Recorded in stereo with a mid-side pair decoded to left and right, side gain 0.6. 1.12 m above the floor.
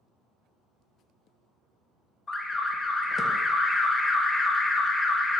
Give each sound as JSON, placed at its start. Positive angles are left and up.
{"t": 2.3, "sound": "an alarm", "azimuth_deg": 25, "distance_m": 0.5}